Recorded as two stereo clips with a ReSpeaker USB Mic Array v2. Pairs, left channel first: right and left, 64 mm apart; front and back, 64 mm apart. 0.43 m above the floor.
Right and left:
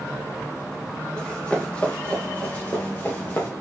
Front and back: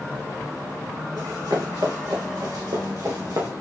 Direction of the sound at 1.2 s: 165° right.